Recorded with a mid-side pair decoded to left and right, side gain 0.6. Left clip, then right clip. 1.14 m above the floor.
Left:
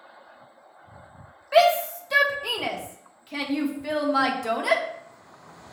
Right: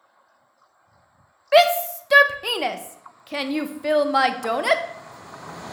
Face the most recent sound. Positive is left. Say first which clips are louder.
# right 3 dB
turn(degrees=-40)